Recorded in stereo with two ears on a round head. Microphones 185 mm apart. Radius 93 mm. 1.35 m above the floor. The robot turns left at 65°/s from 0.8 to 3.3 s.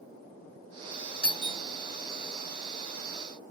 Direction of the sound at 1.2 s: 25° left (ahead or behind).